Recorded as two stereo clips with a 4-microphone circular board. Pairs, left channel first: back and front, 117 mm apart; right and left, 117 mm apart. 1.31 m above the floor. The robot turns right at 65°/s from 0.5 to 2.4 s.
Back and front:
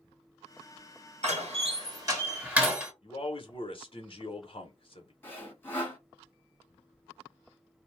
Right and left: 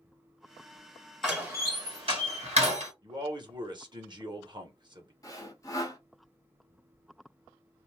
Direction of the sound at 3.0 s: 140° left.